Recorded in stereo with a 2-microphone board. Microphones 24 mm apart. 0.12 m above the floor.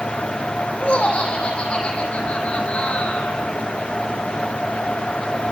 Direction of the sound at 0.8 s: 55° left (ahead or behind).